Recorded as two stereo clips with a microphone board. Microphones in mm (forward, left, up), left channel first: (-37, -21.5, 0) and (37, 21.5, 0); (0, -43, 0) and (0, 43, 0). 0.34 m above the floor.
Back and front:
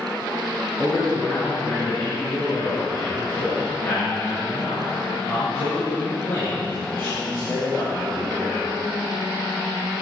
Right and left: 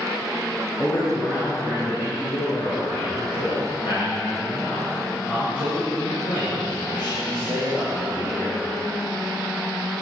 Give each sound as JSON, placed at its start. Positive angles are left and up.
{"t": 0.8, "sound": "a man speaking", "azimuth_deg": -85, "distance_m": 3.0}